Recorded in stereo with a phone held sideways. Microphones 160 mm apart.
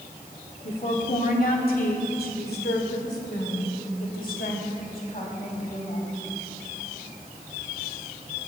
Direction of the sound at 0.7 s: 50° left (ahead or behind).